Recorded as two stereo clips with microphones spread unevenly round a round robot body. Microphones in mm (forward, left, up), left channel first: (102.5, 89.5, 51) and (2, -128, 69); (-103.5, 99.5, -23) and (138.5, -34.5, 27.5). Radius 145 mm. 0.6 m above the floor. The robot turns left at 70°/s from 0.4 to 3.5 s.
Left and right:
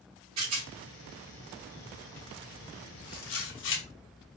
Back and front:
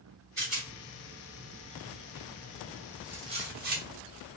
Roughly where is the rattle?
Right.